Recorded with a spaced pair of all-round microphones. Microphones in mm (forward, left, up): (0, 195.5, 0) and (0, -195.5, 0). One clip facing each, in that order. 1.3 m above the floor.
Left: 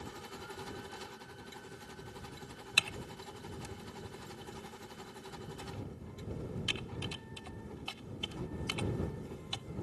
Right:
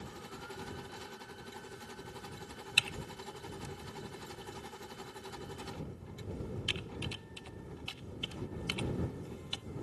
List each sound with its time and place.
2.8 s typing on a keyboard: 60° left (ahead or behind)